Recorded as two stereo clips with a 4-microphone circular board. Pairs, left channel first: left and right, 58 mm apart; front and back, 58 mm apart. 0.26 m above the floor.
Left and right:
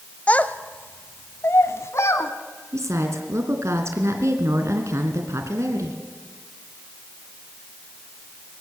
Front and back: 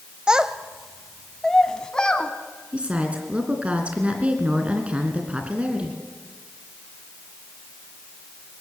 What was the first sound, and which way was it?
A child speaking, 115° left.